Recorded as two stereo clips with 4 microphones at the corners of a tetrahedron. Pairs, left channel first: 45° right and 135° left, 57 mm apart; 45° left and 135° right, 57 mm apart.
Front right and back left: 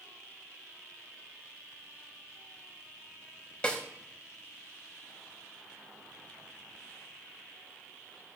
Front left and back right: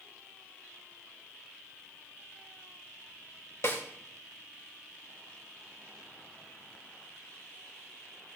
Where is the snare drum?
25° left, 2 m.